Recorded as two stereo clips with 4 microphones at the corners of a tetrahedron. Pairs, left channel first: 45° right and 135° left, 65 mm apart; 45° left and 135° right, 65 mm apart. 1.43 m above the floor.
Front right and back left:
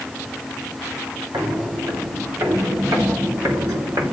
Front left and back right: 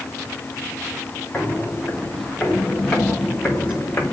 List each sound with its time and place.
1.3 s footsteps: 120° left, 4.5 m; by 4.1 s 100° left, 4.5 m